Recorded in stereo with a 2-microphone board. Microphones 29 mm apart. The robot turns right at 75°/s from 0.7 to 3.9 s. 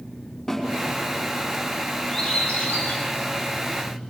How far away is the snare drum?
About 5 m.